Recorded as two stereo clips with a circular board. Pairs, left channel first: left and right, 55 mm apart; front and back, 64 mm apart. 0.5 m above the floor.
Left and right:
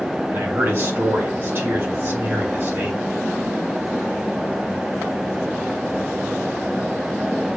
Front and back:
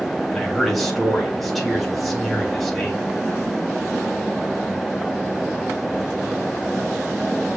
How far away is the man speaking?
About 1.6 m.